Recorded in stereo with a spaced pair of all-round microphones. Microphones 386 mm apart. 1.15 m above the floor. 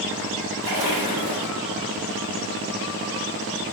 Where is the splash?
70° right (ahead or behind), 1.7 m.